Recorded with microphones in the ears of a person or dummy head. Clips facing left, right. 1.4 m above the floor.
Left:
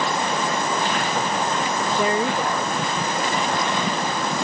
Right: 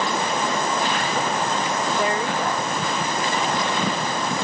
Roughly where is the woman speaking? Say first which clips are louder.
Left 4 dB; left.